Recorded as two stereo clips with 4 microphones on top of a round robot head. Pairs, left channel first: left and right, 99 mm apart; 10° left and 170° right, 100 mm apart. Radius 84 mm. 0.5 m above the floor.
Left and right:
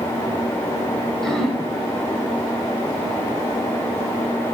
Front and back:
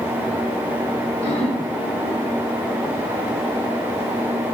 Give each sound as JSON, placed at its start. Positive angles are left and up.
{"t": 1.2, "sound": "throat clearing", "azimuth_deg": 5, "distance_m": 1.7}